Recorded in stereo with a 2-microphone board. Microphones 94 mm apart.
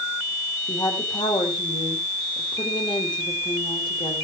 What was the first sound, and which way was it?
A woman speaking, 50° left (ahead or behind).